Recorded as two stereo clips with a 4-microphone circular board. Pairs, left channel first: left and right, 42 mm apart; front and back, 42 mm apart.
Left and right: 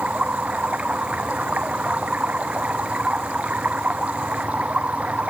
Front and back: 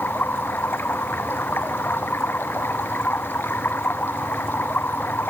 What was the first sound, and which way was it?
Running water, 35° right.